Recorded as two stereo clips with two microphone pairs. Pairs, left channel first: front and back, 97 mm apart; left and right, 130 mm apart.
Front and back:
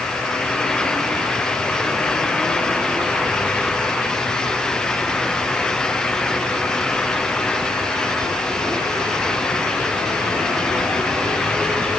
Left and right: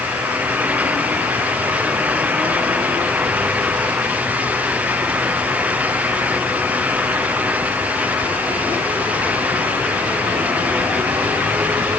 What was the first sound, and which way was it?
Only background noise.